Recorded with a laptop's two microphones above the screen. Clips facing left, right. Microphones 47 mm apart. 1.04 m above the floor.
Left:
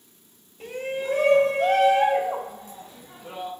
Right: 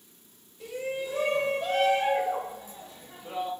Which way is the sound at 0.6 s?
40° left (ahead or behind).